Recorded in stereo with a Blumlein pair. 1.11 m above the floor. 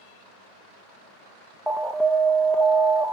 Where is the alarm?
Straight ahead, 0.6 m.